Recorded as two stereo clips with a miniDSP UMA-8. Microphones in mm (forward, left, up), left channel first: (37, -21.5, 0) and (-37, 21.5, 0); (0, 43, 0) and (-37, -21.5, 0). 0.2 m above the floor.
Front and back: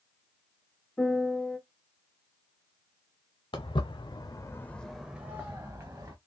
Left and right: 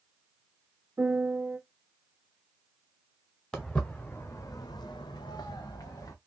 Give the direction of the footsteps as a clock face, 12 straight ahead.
1 o'clock.